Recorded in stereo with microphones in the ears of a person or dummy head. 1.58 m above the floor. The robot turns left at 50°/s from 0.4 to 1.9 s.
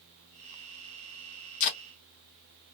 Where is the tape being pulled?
45° left (ahead or behind), 1.2 m; by 1.8 s 35° left (ahead or behind), 1.2 m.